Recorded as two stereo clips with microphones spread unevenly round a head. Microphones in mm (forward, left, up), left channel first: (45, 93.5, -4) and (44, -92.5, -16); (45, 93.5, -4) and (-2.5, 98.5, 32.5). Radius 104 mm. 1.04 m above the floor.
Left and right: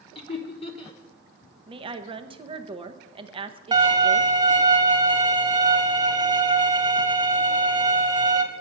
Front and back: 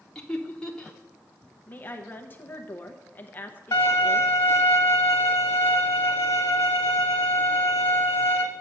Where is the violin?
25° right, 1.6 m.